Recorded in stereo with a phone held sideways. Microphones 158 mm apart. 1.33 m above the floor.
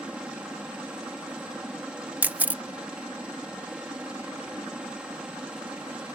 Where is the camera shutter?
10° right (ahead or behind).